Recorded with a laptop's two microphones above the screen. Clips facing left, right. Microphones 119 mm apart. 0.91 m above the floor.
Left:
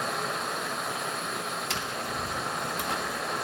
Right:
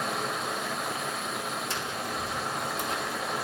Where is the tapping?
70° left (ahead or behind), 1.3 m.